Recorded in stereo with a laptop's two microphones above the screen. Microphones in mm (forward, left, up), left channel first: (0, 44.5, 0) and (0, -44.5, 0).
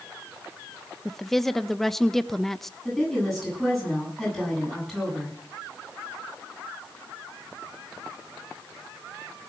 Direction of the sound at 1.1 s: 5° left (ahead or behind).